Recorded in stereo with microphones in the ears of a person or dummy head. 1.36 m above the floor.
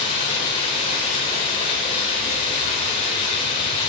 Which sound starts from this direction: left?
Running water, at 0.0 s.